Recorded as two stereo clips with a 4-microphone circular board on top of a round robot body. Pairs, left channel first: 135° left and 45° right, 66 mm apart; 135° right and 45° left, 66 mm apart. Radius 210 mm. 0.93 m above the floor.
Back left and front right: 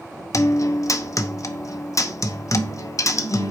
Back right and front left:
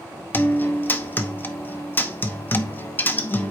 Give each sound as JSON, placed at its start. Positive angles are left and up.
{"t": 0.3, "sound": "a guitar", "azimuth_deg": 165, "distance_m": 1.0}